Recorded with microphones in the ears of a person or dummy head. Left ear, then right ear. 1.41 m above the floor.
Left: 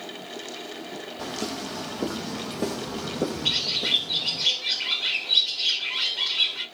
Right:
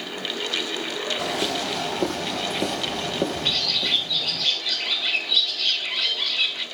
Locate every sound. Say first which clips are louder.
1.2 s footsteps: right 3 dB; 30° right (ahead or behind), 1.8 m; by 4.5 s 5° left (ahead or behind), 1.6 m
3.5 s a bird: right 2 dB; centre (ahead or behind), 1.8 m